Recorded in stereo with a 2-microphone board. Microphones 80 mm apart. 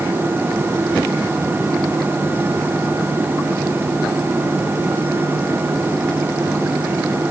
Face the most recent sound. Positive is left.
No sound to turn to.